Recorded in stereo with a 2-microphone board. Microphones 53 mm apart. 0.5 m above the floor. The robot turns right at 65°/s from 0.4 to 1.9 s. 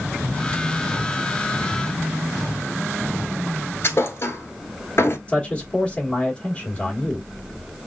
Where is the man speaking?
20° left (ahead or behind), 1.4 m.